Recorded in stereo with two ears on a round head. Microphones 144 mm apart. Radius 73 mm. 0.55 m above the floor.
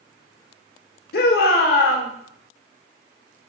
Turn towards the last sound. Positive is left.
turn(degrees=65)  # may be behind; listen again after turning